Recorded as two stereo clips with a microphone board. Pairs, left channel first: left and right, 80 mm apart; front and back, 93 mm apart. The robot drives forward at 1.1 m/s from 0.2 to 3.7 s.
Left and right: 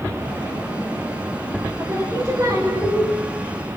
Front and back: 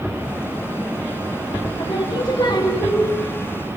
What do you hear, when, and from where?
1.8 s singing: 35° right, 4.5 m; by 3.1 s 45° right, 3.5 m